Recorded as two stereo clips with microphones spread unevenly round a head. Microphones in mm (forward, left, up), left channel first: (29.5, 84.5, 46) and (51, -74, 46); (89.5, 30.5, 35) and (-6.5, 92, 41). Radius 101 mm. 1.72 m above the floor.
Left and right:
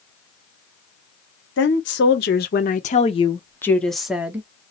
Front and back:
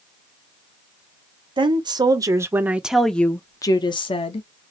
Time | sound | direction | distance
1.6 | a woman speaking | 105° left | 1.1 m